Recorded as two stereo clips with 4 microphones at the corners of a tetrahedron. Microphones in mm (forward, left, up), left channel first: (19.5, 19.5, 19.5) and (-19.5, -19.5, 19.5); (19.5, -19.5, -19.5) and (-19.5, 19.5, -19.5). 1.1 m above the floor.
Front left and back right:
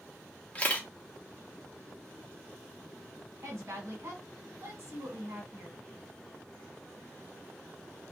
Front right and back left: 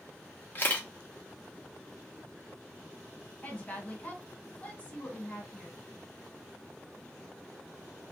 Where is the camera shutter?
10° right, 0.7 m.